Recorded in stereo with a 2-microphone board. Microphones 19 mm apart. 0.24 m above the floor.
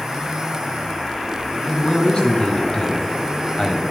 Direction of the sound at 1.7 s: 55° left (ahead or behind).